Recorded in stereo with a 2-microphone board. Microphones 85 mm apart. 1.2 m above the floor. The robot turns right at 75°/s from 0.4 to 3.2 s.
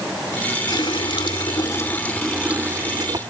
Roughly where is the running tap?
Ahead left.